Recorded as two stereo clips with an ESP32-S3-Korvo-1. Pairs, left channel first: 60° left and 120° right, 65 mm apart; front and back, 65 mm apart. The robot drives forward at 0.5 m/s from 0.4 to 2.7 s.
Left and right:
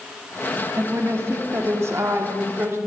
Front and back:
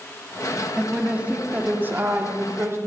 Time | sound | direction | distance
0.8 | a woman speaking | 105° right | 1.3 m